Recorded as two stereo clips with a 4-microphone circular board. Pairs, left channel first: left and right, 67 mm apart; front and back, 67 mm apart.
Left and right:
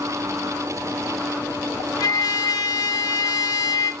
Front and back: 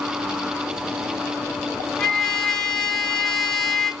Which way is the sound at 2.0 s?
80° left.